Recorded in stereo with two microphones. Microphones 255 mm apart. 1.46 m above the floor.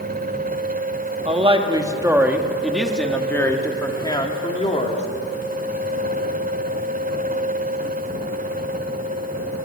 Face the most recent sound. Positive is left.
turn(degrees=25)  # may be behind; listen again after turning